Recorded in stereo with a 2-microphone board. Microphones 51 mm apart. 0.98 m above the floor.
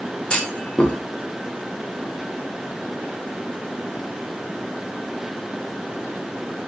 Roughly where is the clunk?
Centre.